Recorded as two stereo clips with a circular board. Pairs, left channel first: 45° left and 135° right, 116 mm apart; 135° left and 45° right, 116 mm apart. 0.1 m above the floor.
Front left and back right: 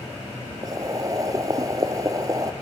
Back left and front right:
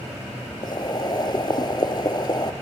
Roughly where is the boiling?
Behind.